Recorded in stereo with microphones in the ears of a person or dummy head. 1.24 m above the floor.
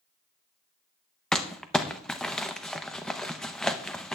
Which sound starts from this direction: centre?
Crumpling, at 1.3 s.